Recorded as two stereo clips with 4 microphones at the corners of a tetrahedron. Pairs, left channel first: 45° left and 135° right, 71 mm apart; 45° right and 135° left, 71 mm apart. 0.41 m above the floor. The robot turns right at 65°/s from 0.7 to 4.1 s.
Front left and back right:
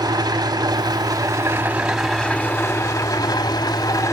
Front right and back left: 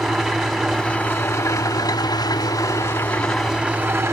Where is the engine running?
135° right, 1.7 m; by 4.1 s 85° left, 1.7 m.